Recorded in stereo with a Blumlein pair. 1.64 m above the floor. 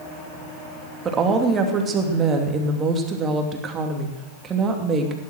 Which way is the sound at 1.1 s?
20° right.